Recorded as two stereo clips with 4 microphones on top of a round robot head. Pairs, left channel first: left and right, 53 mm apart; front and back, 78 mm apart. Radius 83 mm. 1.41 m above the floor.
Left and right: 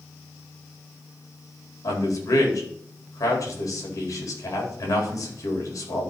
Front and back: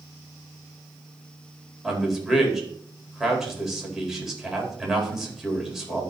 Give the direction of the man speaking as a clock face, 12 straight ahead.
9 o'clock.